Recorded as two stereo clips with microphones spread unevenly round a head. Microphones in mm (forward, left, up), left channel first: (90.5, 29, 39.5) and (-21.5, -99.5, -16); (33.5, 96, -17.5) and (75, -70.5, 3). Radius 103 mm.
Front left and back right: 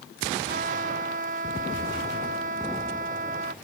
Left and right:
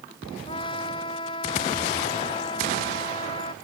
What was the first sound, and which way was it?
A trumpet, 175° left.